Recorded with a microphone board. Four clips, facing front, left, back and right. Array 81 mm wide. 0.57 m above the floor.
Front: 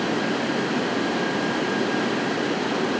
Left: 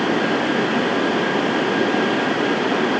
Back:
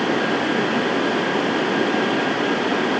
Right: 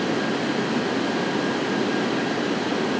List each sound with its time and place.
Only background noise.